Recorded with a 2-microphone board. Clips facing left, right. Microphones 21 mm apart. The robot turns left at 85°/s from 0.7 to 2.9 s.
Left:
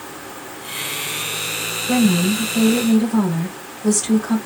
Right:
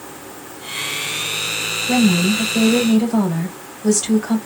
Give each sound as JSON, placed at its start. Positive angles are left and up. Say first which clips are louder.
{"t": 1.9, "sound": "a woman speaking", "louder": "right 1 dB", "azimuth_deg": -45, "distance_m": 2.5}